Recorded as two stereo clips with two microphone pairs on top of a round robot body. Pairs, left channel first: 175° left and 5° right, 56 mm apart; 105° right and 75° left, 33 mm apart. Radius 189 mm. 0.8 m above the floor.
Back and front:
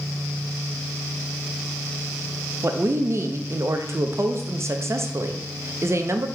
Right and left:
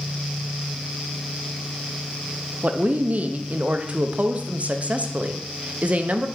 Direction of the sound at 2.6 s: 30° left.